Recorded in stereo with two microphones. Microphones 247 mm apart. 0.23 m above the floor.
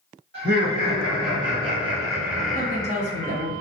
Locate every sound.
0.3 s laughter: 50° right (ahead or behind), 1.5 m; by 3.4 s 25° left (ahead or behind), 1.1 m
2.5 s a woman speaking: 30° right (ahead or behind), 1.3 m